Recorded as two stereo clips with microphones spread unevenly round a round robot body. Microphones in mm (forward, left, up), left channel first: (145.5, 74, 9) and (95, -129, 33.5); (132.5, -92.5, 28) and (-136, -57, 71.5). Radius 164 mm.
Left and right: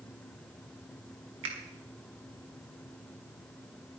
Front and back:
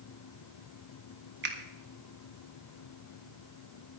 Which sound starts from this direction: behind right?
A finger snap, at 1.4 s.